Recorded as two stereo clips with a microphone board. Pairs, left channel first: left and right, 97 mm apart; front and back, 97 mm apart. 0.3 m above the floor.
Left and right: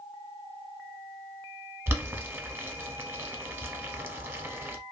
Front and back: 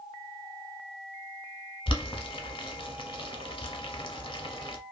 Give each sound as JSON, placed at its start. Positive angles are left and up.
{"t": 1.9, "sound": "boiling", "azimuth_deg": -25, "distance_m": 0.6}